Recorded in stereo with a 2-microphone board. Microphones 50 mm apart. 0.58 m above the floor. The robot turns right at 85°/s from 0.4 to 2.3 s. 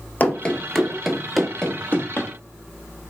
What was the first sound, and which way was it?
Running footsteps, 35° left (ahead or behind).